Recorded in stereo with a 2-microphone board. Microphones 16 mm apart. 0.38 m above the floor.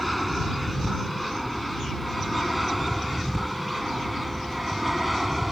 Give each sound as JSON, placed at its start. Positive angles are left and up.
{"t": 0.0, "sound": "an aircraft", "side_deg": 10}